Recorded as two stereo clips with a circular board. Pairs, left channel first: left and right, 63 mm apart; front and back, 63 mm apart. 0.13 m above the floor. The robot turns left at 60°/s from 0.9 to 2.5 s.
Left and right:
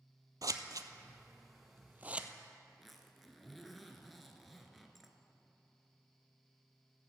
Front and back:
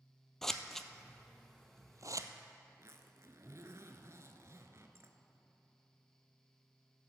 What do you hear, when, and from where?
0.4 s scissors: 85° right, 0.7 m; by 2.3 s 165° right, 0.7 m
2.7 s a zipper: straight behind, 1.0 m